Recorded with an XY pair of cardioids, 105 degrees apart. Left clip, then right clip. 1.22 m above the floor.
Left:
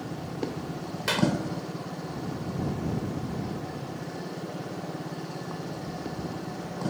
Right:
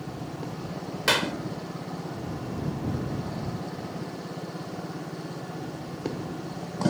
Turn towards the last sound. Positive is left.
turn(degrees=-40)